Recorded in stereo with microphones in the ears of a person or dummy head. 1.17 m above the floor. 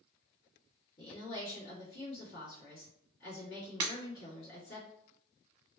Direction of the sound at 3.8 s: 30° right (ahead or behind).